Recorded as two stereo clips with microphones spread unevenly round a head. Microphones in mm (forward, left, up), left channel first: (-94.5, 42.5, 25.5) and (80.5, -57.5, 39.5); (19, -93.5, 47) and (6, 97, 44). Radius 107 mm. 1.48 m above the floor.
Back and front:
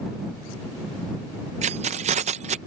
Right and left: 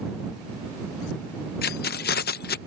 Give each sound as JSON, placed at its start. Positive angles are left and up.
{"t": 1.6, "sound": "keys jangling", "azimuth_deg": -70}